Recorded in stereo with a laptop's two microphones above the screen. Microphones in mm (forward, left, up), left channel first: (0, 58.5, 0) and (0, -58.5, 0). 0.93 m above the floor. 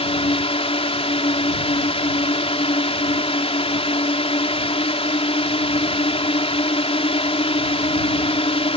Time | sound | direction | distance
0.0 | a drone | 60° left (ahead or behind) | ?